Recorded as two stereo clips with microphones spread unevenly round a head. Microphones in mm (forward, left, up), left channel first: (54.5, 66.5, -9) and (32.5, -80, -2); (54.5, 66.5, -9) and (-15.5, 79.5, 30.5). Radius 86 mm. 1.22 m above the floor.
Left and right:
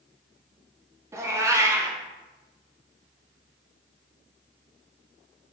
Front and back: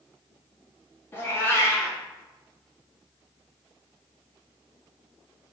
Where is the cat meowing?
110° right, 0.5 m.